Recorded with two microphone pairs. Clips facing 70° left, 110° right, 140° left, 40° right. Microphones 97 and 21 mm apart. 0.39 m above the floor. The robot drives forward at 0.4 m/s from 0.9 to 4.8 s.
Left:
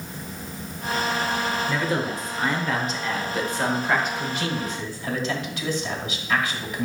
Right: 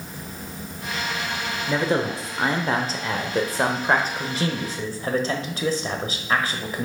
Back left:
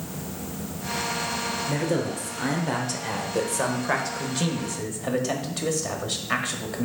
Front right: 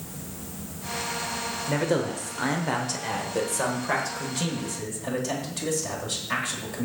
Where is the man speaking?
75° right, 1.1 m; by 6.8 s 155° right, 1.5 m.